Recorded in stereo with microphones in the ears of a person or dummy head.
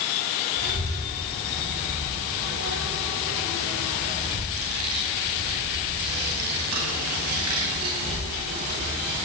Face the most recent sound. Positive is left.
turn(degrees=-85)